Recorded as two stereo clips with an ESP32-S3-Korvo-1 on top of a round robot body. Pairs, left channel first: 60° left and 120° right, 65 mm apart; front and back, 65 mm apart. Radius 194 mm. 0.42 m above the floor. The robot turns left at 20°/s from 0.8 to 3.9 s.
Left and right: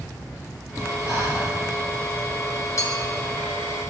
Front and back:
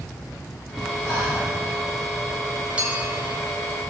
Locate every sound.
1.1 s breathing: 20° left, 4 m; by 1.5 s 10° left, 4 m
2.8 s a clink: 105° left, 1.9 m; by 3.1 s 100° left, 1.9 m